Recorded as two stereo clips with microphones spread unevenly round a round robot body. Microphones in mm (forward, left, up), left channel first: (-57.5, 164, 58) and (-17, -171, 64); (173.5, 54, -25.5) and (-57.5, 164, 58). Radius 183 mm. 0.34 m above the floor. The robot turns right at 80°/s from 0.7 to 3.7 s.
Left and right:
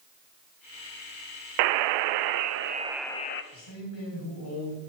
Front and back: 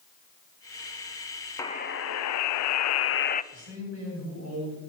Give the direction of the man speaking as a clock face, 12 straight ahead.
8 o'clock.